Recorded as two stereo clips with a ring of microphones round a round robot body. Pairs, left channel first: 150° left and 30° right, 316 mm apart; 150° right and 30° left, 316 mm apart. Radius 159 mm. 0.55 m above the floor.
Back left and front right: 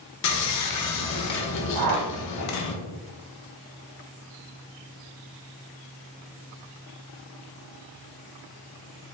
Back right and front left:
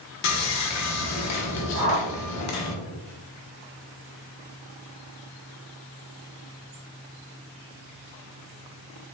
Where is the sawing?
Straight behind, 0.7 m.